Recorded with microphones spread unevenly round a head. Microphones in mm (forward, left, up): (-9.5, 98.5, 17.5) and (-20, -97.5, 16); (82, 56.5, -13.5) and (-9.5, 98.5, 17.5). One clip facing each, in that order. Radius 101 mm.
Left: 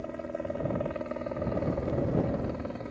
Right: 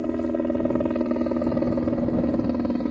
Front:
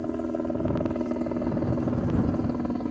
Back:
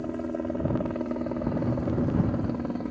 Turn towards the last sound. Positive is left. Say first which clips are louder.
# right 12 dB, front 2 dB
turn(degrees=-105)